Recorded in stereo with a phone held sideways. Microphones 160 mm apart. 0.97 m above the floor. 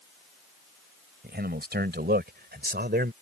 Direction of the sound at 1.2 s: 80° right.